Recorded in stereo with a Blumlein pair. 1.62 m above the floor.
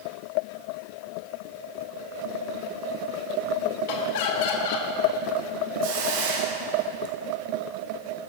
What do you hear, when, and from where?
3.9 s laughter: 50° left, 1.8 m
5.8 s a hiss: 50° right, 1.2 m